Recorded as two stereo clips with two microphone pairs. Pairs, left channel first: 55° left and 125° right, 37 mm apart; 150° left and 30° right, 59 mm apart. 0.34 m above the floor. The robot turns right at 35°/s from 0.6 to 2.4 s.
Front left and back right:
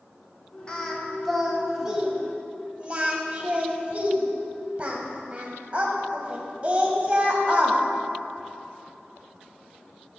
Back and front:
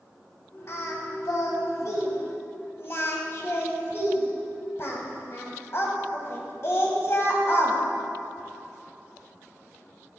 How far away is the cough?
I don't hear a cough.